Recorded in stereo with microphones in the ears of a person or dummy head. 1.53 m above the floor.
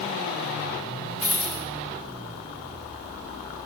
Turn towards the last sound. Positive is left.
turn(degrees=-30)  # may be behind; listen again after turning